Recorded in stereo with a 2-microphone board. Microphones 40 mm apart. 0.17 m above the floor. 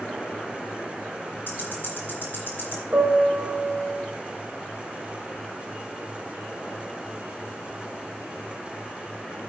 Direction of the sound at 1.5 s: 55° left (ahead or behind).